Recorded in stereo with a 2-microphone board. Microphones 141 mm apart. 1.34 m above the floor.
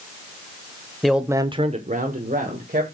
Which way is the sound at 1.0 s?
5° left (ahead or behind).